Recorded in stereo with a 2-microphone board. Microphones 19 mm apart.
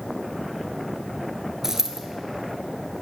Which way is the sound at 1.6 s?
25° right (ahead or behind).